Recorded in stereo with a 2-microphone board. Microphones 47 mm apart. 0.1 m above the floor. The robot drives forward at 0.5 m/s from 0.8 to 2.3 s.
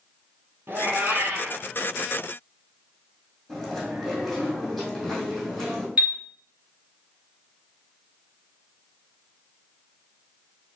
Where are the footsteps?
No footsteps in this recording.